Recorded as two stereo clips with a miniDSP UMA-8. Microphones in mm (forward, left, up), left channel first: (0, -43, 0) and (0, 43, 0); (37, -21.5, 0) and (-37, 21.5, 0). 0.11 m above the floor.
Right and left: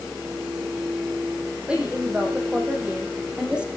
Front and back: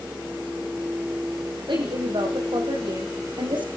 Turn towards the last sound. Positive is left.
turn(degrees=170)